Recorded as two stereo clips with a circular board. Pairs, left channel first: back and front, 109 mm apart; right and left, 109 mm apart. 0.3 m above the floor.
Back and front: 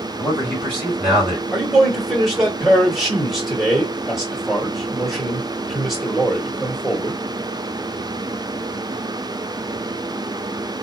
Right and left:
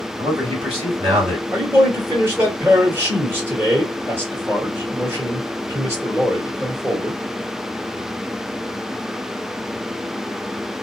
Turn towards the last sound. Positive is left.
turn(degrees=85)